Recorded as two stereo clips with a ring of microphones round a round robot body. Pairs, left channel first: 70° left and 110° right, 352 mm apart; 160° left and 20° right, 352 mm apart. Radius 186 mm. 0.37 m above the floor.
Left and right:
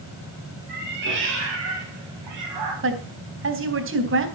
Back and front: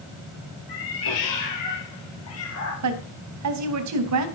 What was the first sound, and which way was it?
A cat meowing, 175° right.